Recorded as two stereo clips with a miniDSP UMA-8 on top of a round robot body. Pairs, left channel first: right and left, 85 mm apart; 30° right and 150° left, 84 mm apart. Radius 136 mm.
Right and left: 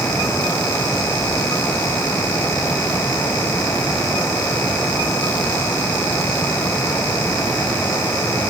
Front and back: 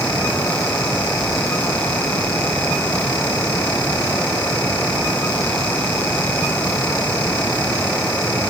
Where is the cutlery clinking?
No cutlery clinking in this recording.